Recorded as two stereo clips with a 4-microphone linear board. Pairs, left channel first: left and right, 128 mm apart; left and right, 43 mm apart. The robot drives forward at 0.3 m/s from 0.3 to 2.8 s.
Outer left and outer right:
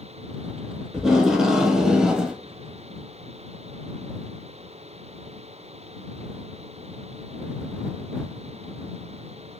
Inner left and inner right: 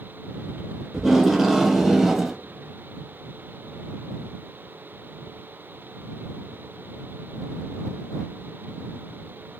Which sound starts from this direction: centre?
Tape being pulled, at 0.9 s.